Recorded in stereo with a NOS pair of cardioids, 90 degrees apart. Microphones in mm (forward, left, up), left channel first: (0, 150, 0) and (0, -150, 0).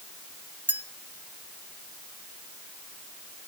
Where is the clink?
5° right, 1.4 m.